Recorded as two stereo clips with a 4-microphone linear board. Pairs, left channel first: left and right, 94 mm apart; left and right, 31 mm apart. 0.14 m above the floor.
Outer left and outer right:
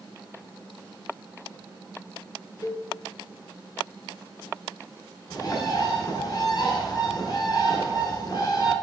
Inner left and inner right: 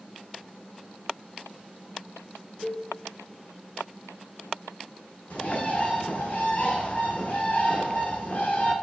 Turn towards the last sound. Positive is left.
turn(degrees=45)  # may be behind; listen again after turning